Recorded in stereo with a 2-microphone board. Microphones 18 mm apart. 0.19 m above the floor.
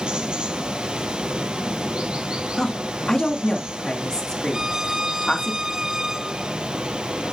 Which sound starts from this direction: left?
A woman speaking, at 2.6 s.